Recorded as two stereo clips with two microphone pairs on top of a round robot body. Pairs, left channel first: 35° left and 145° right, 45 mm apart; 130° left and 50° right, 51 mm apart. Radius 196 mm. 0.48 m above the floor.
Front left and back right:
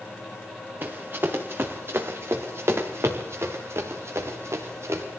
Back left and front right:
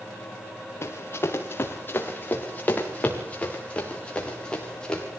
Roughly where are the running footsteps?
Behind.